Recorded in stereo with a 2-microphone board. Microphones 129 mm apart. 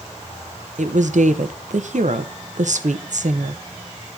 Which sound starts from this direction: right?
A woman speaking, at 0.8 s.